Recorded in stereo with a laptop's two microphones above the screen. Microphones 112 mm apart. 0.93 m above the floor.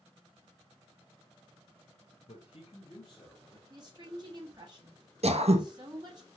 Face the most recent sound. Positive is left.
turn(degrees=-70)  # may be behind; listen again after turning